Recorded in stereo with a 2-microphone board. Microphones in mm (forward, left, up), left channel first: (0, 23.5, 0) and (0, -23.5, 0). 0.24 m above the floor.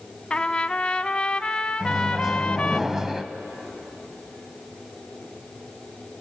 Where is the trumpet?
20° left (ahead or behind), 0.6 m.